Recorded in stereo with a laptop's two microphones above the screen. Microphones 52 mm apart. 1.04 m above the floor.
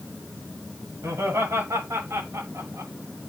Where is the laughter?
65° right (ahead or behind), 7 m; by 2.9 s 85° right, 6 m.